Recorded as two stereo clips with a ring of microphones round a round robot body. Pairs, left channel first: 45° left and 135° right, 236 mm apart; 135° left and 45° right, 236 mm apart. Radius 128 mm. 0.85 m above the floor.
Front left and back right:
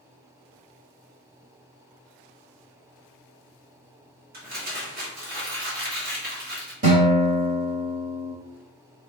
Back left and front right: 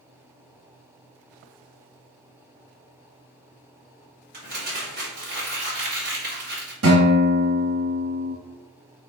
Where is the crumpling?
90° right, 2.0 m.